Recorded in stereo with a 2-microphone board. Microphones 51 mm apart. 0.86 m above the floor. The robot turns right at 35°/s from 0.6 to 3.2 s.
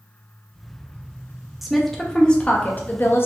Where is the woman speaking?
5° right, 0.6 m; by 3.3 s 50° left, 0.6 m.